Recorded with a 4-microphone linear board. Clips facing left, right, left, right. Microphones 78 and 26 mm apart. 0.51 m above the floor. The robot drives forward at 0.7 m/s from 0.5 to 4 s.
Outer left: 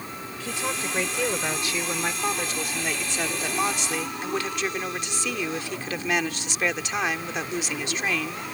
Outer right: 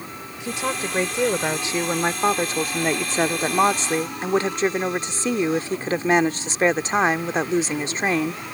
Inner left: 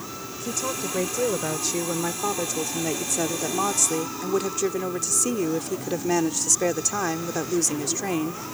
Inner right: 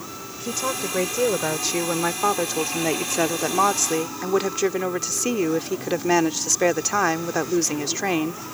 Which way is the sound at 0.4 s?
20° right (ahead or behind).